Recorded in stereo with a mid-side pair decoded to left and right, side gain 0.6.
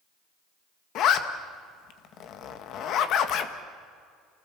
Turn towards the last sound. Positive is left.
turn(degrees=55)